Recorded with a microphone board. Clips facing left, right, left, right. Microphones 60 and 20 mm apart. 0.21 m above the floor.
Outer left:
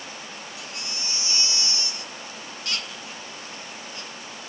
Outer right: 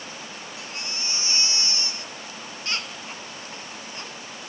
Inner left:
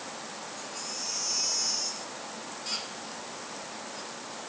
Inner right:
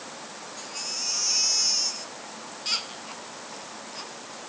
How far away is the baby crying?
About 1.6 m.